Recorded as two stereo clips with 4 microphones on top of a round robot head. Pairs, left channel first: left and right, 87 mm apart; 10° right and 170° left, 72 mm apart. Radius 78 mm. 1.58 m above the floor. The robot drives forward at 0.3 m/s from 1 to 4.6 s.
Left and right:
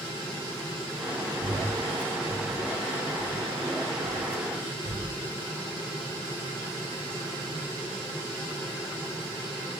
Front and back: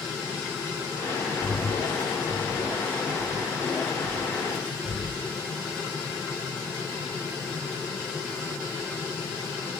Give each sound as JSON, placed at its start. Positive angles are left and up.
{"t": 1.4, "sound": "breathing", "azimuth_deg": -70, "distance_m": 1.5}